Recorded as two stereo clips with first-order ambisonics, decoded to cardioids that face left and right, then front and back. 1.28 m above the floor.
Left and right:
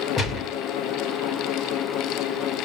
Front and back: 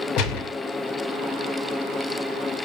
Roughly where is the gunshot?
Ahead left.